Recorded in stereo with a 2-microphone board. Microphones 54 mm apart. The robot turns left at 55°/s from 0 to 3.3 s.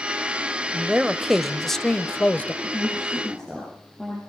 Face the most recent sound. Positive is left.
turn(degrees=5)